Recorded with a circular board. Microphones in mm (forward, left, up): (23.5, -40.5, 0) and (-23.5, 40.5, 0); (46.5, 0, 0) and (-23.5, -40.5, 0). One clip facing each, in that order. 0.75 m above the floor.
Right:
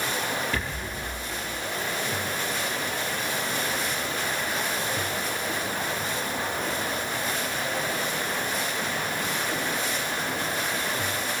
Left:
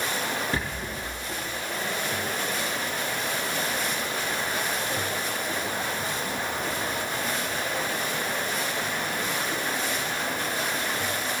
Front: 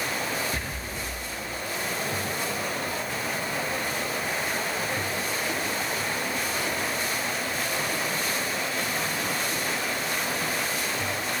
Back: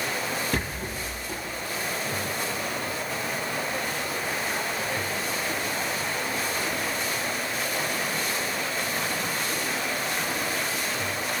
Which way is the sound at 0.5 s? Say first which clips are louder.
Left 1 dB, back 3 dB; straight behind.